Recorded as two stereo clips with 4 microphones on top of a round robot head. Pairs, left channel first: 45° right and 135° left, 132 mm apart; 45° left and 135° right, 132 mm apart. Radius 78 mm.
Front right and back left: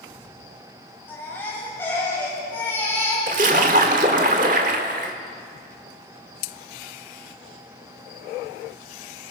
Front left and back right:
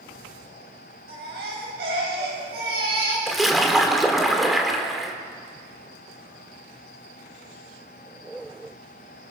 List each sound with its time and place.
1.1 s a baby crying: 120° right, 8.5 m
3.3 s a splash: 135° left, 1.7 m